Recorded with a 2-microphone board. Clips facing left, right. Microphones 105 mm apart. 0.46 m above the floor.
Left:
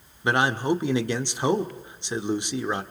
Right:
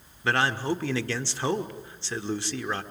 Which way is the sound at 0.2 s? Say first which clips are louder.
Left 3 dB; 20° left (ahead or behind).